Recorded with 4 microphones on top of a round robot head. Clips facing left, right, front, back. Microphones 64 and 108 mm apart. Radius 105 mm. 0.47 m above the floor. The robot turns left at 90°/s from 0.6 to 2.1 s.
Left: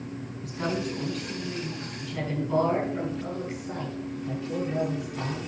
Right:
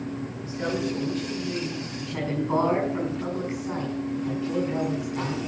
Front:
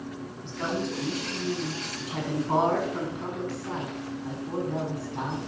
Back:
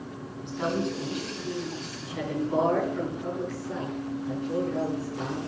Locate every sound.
0.4 s a woman speaking: 110° left, 7 m; by 5.4 s 25° right, 7 m